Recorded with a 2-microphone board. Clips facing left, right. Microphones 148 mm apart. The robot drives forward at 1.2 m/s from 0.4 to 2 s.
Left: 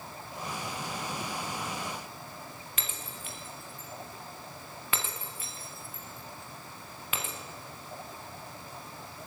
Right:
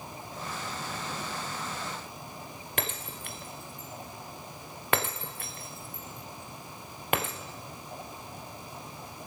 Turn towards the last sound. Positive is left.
turn(degrees=-60)  # may be behind; listen again after turning